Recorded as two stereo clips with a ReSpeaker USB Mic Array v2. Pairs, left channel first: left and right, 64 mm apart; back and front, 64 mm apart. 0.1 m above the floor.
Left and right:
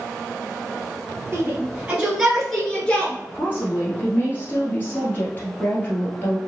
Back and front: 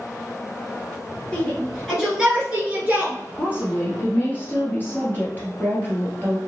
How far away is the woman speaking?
About 1.5 m.